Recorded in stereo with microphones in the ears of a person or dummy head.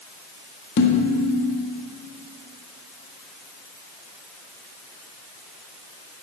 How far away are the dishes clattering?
About 1.5 m.